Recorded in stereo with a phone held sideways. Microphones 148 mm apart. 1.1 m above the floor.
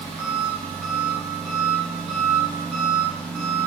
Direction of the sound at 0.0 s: 5° left (ahead or behind).